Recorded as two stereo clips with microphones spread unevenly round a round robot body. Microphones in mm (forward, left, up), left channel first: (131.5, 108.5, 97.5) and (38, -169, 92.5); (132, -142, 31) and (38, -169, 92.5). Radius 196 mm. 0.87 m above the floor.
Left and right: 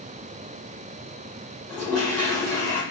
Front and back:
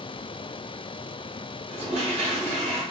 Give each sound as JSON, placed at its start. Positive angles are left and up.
{"t": 1.7, "sound": "a toilet flushing", "azimuth_deg": 160, "distance_m": 1.1}